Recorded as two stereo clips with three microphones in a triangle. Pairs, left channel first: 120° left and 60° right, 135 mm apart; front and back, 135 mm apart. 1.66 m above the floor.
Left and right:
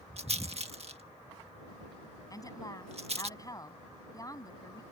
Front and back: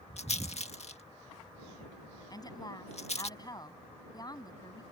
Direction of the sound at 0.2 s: 30° right.